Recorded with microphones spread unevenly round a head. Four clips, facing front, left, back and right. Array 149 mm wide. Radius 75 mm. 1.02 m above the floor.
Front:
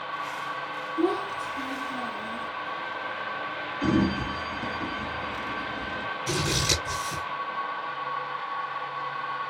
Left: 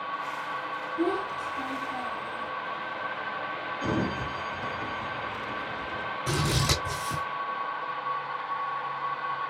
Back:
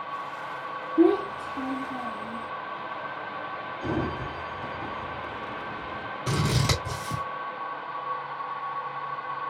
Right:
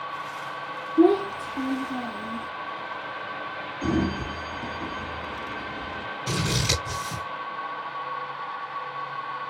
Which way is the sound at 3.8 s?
10° right.